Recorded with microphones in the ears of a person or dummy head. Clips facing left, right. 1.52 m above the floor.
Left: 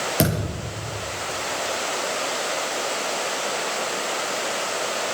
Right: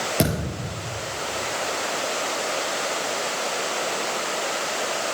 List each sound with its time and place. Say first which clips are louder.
0.2 s a thud: left 1 dB; 5° left (ahead or behind), 6 m